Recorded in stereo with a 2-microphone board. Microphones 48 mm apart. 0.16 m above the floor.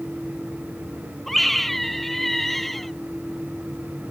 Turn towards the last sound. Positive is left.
turn(degrees=0)  # may be behind; listen again after turning